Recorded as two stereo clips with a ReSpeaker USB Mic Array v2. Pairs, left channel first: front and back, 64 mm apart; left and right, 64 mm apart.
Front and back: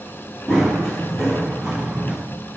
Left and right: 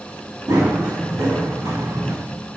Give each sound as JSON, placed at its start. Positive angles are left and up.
{"t": 0.5, "sound": "running footsteps", "azimuth_deg": -80, "distance_m": 3.5}